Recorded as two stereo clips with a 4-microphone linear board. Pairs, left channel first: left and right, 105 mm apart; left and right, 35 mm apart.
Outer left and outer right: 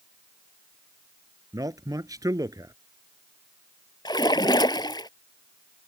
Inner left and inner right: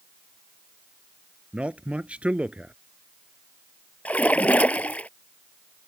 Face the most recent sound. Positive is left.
turn(degrees=45)  # may be behind; listen again after turning